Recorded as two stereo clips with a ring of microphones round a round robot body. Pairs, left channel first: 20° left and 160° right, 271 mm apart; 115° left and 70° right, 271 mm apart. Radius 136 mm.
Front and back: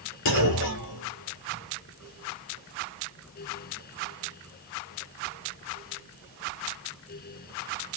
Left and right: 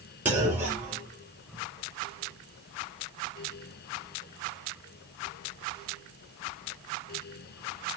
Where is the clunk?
15° left, 3 m.